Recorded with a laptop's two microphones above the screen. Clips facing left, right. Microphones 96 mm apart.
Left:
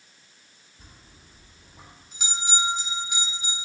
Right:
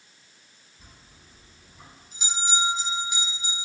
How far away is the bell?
About 1.2 m.